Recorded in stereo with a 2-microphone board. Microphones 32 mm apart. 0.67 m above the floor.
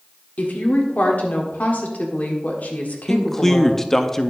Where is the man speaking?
15° left (ahead or behind), 0.5 m.